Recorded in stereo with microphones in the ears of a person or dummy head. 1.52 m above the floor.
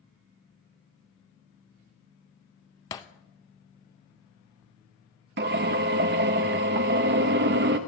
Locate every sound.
2.9 s breaking glass: 20° left (ahead or behind), 0.7 m
5.4 s a drill: 55° right (ahead or behind), 1.0 m